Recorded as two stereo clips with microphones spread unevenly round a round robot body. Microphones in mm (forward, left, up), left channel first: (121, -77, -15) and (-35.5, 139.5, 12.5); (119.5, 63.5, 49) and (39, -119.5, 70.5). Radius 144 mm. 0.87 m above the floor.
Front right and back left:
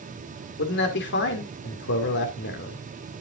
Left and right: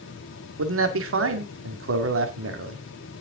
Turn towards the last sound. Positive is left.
turn(degrees=-105)